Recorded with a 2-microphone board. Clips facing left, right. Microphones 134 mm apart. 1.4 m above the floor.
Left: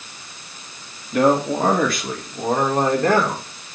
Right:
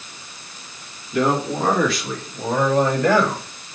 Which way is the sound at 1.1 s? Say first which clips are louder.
Left 3 dB; 55° left (ahead or behind).